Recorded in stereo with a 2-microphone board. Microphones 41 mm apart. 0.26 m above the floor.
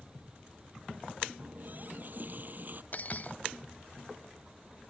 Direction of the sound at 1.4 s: 45° right (ahead or behind).